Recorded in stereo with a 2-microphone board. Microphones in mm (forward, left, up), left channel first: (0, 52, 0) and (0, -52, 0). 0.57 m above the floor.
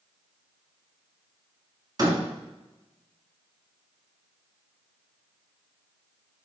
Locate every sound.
2.0 s a door slam: 40° right (ahead or behind), 3.5 m